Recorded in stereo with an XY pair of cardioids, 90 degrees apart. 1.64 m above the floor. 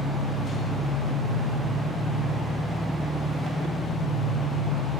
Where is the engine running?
45° left, 1.9 m.